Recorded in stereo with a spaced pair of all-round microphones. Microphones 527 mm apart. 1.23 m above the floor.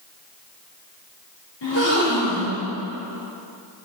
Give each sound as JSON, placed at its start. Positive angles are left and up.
{"t": 1.6, "sound": "a gasp", "side_deg": 55, "distance_m": 2.5}